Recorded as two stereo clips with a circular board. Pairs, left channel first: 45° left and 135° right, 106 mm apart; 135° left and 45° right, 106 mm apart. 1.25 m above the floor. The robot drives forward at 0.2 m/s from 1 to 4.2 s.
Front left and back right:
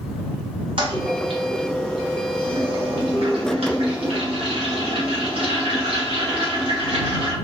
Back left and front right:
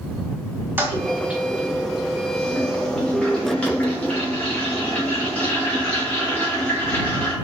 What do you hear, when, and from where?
0.8 s a toilet flushing: 115° right, 0.6 m; by 7.3 s 150° right, 1.0 m